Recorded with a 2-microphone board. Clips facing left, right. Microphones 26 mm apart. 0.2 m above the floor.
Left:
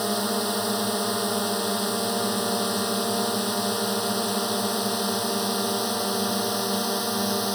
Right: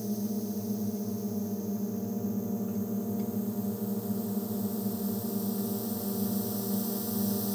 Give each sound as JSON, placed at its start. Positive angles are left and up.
{"t": 0.0, "sound": "a drone", "side_deg": 75}